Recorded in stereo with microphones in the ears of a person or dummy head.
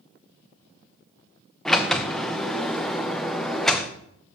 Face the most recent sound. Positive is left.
turn(degrees=0)  # may be behind; listen again after turning